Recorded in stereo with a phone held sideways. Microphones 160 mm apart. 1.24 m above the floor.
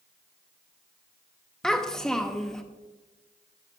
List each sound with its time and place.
1.6 s a child speaking: 5° left (ahead or behind), 0.6 m